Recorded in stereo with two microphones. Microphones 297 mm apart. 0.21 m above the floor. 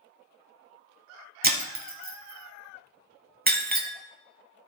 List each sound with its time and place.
1.4 s breaking glass: 30° right (ahead or behind), 0.8 m